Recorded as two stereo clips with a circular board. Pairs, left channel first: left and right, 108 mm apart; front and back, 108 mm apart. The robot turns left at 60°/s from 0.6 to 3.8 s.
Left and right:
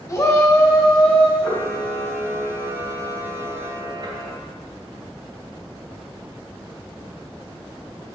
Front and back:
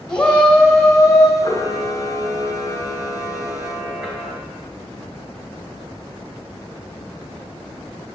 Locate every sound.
0.1 s a shout: 70° left, 1.2 m; by 1.3 s 30° left, 1.2 m
1.4 s a camera shutter: 45° left, 2.5 m; by 4.3 s 100° right, 2.5 m